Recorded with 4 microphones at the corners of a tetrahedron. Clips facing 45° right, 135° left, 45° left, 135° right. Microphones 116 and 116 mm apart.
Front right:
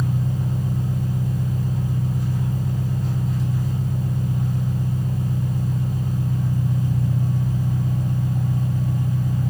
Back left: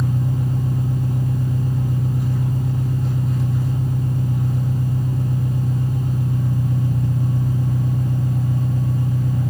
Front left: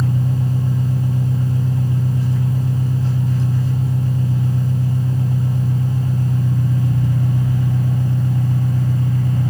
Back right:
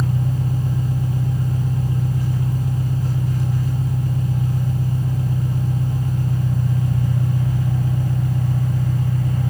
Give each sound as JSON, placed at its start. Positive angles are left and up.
{"t": 0.0, "sound": "an engine running", "azimuth_deg": 105, "distance_m": 4.5}